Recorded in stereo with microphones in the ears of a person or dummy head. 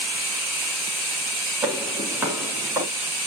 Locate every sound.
1.6 s footsteps: 5° right (ahead or behind), 3 m; by 2.9 s 15° right (ahead or behind), 3 m